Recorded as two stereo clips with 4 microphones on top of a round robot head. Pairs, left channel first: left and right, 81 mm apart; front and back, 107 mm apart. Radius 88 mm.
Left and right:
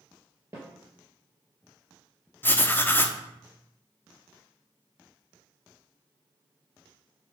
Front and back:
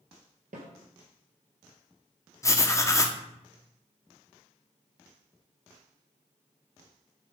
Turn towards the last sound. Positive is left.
turn(degrees=45)